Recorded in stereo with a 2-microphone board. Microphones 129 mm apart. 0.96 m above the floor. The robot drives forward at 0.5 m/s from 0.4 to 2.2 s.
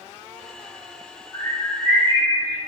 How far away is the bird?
About 1.4 m.